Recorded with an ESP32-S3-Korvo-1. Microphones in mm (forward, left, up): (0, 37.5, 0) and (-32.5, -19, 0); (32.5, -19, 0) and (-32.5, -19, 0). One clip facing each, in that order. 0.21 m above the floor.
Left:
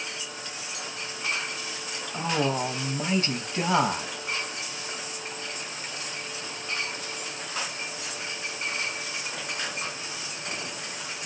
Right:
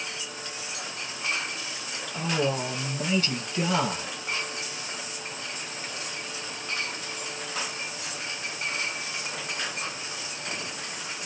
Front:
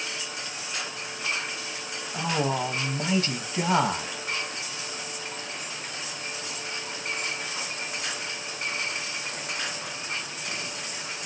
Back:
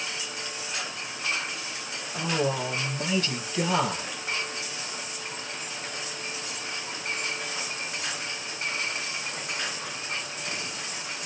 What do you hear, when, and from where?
2.1 s a man speaking: 40° left, 1.3 m